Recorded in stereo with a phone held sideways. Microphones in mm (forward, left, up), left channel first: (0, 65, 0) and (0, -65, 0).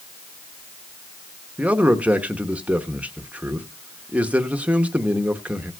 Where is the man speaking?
10° right (ahead or behind), 1.0 m.